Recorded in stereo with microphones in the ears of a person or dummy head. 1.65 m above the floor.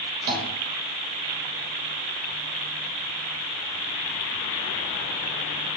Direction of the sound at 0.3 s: 45° right (ahead or behind).